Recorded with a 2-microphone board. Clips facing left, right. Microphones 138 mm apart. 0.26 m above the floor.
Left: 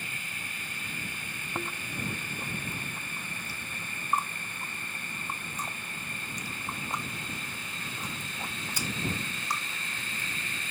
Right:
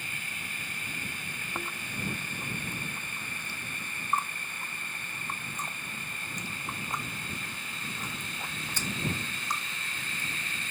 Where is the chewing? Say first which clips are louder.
Left 3 dB; 10° left (ahead or behind).